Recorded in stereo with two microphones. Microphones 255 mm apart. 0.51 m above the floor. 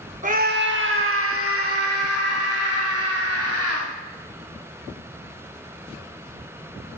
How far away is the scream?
About 0.7 m.